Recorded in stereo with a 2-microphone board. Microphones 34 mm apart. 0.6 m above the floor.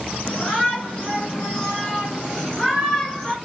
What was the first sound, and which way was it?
A shout, 35° left (ahead or behind).